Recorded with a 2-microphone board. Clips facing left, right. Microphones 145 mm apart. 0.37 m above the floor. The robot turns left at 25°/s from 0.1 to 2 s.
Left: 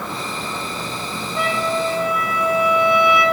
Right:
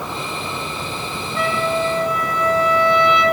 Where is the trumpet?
25° left (ahead or behind), 8 m; by 3.2 s 5° left (ahead or behind), 8 m.